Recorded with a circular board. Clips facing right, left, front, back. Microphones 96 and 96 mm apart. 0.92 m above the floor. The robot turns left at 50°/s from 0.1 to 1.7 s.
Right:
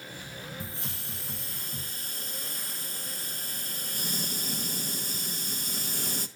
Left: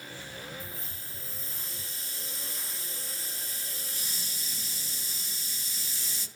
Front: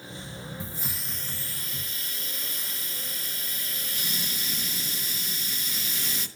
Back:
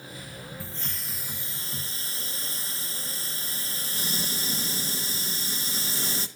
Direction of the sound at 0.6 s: 70° right.